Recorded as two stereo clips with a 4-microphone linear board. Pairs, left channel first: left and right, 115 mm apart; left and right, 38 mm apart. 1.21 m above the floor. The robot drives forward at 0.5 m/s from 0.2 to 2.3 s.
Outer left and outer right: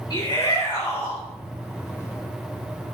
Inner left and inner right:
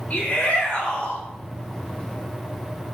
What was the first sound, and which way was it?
A shout, 35° left (ahead or behind).